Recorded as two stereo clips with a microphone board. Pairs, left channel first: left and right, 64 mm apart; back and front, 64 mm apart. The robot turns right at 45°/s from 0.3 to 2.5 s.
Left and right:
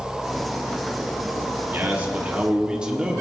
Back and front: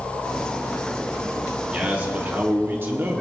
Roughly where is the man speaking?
Ahead right.